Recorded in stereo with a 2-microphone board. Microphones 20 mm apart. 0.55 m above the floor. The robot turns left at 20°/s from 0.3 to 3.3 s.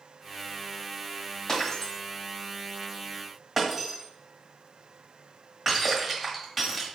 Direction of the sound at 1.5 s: 30° left (ahead or behind).